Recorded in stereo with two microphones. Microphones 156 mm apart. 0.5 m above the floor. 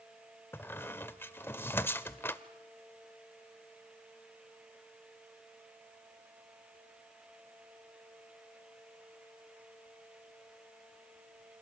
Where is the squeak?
15° left (ahead or behind), 0.7 m.